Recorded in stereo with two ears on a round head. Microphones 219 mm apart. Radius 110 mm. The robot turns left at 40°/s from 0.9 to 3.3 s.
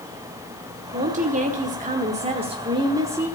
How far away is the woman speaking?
About 1.2 m.